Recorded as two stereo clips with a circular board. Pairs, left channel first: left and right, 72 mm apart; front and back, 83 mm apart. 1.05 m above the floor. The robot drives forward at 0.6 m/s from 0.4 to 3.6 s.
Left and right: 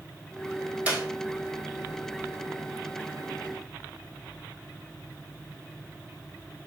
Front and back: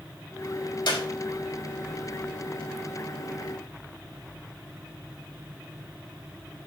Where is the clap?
20° right, 4.5 m.